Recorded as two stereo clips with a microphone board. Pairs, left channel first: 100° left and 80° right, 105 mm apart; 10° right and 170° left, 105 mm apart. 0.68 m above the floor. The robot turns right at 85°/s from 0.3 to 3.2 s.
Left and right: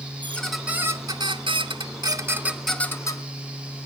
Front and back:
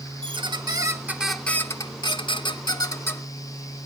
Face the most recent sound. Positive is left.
turn(degrees=60)